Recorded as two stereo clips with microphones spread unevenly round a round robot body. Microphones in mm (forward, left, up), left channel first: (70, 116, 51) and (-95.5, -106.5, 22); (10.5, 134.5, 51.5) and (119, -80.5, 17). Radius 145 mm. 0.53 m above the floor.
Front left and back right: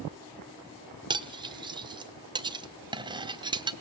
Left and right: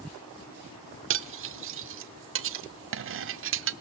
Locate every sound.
1.1 s cutlery clinking: 60° right, 0.9 m